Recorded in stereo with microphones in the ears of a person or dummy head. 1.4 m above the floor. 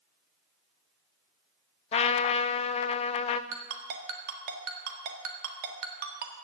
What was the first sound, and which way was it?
A trumpet, 35° left (ahead or behind).